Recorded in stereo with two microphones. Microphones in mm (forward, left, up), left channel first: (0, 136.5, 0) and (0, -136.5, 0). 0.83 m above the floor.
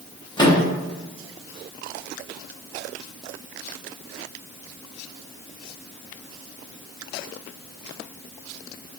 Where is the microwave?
15° left (ahead or behind), 0.8 m.